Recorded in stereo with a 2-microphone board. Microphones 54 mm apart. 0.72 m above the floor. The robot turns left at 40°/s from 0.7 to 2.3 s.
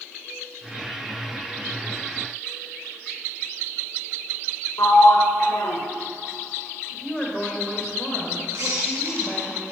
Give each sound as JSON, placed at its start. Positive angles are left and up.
{"t": 4.8, "sound": "a sliding door", "side_deg": 85, "distance_m": 1.2}
{"t": 6.9, "sound": "a woman speaking", "side_deg": 15, "distance_m": 2.5}
{"t": 8.5, "sound": "a squeak", "side_deg": -55, "distance_m": 3.5}